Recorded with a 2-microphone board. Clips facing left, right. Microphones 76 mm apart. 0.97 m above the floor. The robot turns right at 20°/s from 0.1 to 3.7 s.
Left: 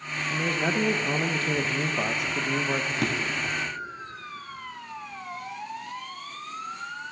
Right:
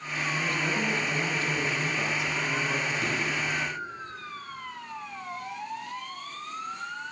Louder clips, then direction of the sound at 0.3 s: Left 3 dB; 60° left.